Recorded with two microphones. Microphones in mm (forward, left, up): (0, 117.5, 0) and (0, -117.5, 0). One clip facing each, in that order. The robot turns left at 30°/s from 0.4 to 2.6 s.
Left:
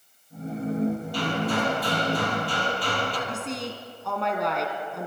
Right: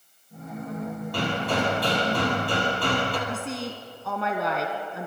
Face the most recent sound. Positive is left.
turn(degrees=0)  # may be behind; listen again after turning